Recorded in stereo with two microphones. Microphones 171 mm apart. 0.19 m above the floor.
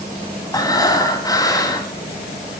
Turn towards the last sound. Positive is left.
turn(degrees=20)  # may be behind; listen again after turning